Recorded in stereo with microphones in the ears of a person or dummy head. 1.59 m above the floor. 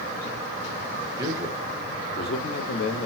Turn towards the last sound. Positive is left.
turn(degrees=65)  # may be behind; listen again after turning